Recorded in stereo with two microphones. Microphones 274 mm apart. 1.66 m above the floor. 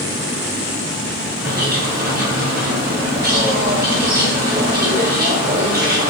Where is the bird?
35° right (ahead or behind), 1.1 m.